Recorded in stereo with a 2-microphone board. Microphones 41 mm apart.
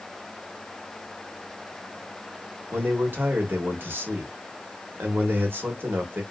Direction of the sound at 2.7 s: 55° right (ahead or behind).